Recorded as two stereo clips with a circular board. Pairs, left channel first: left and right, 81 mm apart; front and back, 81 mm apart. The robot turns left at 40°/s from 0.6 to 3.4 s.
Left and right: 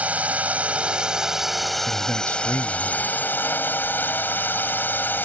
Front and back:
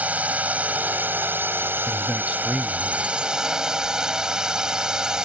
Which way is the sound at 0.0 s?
135° right.